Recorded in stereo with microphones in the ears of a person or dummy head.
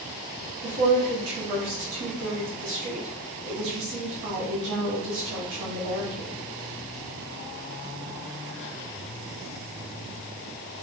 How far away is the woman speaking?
About 1.2 m.